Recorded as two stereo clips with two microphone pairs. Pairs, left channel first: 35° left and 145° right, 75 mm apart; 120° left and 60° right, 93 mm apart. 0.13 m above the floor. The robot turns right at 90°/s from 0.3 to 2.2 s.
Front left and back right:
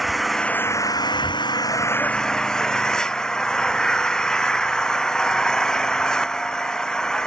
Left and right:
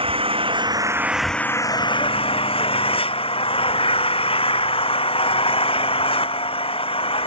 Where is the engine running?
55° right; by 7.3 s 115° left.